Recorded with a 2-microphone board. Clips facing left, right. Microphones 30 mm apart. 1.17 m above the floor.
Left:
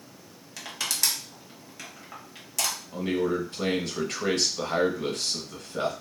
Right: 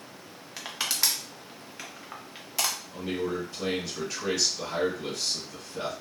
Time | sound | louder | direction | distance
0.6 | crushing | even | 20° right (ahead or behind) | 0.7 m
2.9 | a man speaking | left 8 dB | 70° left (ahead or behind) | 1.1 m